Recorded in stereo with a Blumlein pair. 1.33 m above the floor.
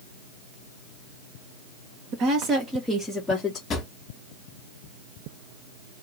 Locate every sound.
2.1 s a woman speaking: 35° right, 1.4 m; by 3.6 s 20° left, 1.4 m
3.7 s a drawer: 25° left, 1.5 m